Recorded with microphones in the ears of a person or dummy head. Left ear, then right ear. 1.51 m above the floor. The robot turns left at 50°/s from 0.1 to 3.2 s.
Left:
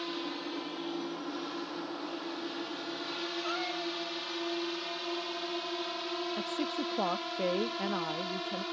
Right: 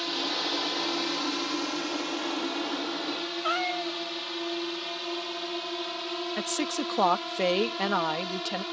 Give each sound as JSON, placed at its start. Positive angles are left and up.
{"t": 0.0, "sound": "a drone", "side_deg": -25}
{"t": 3.4, "sound": "a cat meowing", "side_deg": -25}
{"t": 6.4, "sound": "a woman speaking", "side_deg": -60}